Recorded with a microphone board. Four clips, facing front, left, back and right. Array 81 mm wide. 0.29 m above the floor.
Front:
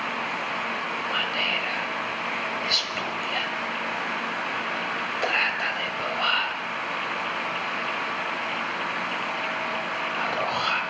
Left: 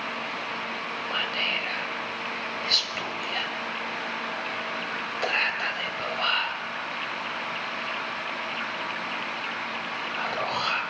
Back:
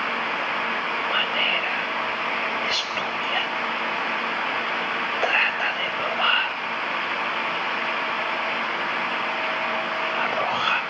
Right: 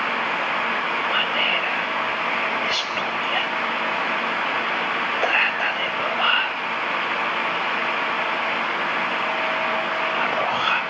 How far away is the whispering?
About 1.0 m.